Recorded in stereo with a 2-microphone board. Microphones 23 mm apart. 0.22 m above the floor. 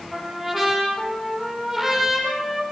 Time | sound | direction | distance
0.1 | a trumpet | 10° right (ahead or behind) | 9 m